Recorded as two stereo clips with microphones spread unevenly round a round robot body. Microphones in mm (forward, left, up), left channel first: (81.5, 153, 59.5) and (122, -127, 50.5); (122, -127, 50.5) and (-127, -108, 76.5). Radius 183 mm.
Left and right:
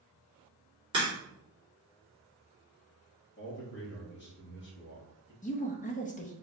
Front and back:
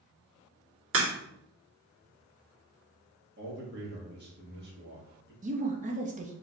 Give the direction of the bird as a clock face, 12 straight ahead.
I don't hear a bird.